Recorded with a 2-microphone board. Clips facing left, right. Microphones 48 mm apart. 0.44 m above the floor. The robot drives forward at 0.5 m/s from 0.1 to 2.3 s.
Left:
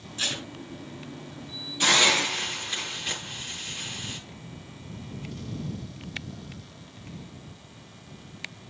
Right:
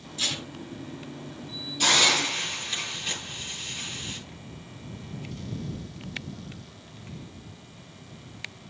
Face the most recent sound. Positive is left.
turn(degrees=25)  # may be behind; listen again after turning